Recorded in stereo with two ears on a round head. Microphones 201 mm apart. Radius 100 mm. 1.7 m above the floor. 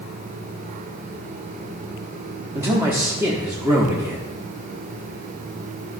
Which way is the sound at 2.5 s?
15° right (ahead or behind).